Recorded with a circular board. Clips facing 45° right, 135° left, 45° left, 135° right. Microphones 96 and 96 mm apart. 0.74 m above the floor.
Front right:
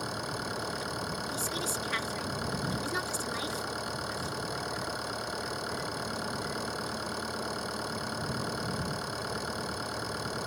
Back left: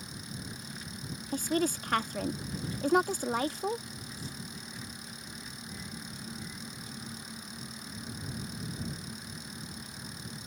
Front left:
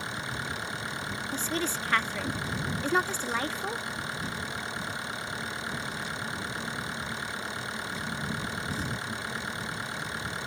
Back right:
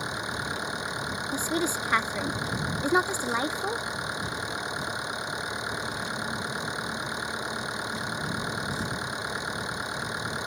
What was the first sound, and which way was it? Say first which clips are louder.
An engine running: front right 9 dB, back right 3 dB; 65° right.